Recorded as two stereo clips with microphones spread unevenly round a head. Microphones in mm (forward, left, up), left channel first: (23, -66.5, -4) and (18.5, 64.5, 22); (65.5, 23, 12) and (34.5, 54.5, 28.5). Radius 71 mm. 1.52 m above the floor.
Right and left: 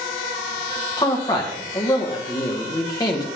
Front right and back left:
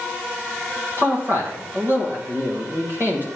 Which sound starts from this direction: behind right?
A man speaking, at 1.0 s.